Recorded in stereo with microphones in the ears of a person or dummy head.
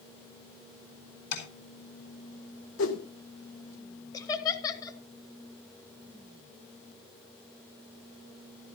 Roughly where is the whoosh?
Left.